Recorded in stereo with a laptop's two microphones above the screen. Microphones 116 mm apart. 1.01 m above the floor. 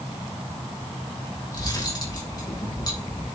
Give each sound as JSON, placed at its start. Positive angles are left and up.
{"t": 1.5, "sound": "cutlery clinking", "side_deg": 35, "distance_m": 2.5}